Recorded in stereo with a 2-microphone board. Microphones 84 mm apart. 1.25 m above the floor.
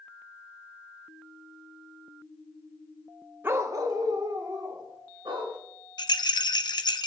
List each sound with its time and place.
3.4 s a dog barking: 25° right (ahead or behind), 0.7 m; by 5.6 s 60° right (ahead or behind), 3 m
6.0 s a rattle: 60° left (ahead or behind), 0.7 m